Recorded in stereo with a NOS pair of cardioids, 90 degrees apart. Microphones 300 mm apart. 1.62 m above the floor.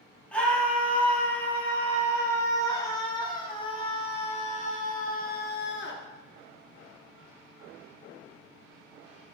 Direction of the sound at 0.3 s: 5° left.